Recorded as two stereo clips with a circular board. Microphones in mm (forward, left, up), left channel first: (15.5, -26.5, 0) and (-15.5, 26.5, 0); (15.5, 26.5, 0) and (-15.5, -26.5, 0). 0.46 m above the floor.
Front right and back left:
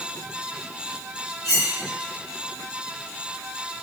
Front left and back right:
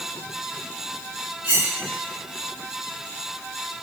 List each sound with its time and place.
1.4 s cutlery clinking: 55° right, 1.9 m